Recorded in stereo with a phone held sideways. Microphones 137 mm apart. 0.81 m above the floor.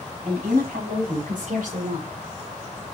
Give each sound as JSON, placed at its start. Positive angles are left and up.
{"t": 0.2, "sound": "a woman speaking", "side_deg": -80, "distance_m": 5.5}